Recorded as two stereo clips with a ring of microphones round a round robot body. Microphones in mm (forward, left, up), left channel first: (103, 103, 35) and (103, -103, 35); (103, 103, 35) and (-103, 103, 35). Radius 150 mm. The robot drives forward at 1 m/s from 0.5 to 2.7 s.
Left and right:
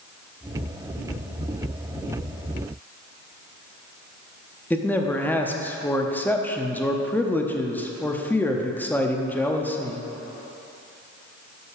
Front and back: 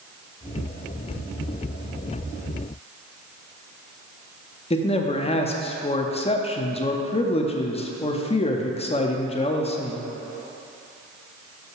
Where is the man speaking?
15° left, 0.8 m.